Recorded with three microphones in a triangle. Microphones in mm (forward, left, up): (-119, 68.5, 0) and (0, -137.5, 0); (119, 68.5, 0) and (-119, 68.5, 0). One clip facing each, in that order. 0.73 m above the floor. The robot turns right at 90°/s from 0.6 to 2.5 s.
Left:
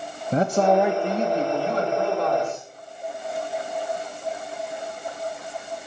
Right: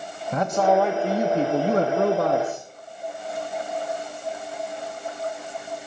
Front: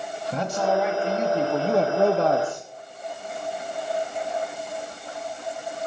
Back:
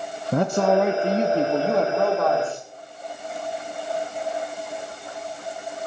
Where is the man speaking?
170° left, 0.7 m; by 2.7 s 20° right, 0.7 m.